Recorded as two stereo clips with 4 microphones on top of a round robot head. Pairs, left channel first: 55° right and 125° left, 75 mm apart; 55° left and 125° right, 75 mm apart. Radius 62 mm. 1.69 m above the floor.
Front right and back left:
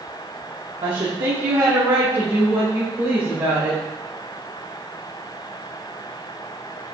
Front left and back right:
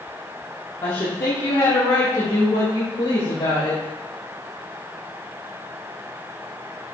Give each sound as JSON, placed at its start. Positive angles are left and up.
{"t": 0.8, "sound": "a woman speaking", "azimuth_deg": 105, "distance_m": 1.1}